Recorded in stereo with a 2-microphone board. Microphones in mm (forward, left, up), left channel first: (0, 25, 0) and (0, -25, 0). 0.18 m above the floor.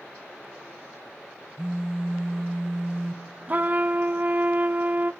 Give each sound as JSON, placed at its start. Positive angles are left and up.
{"t": 1.6, "sound": "a phone buzzing", "side_deg": -10, "distance_m": 1.0}
{"t": 3.5, "sound": "a trumpet", "side_deg": -35, "distance_m": 0.5}